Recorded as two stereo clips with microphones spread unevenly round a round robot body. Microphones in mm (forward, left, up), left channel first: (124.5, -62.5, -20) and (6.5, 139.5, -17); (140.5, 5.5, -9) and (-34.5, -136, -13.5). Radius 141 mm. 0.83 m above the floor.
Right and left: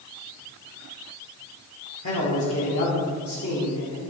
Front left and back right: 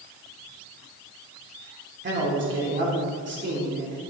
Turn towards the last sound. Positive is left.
turn(degrees=-105)